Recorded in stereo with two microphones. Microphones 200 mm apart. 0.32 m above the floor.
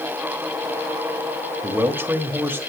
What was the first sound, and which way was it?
A man speaking, 10° right (ahead or behind).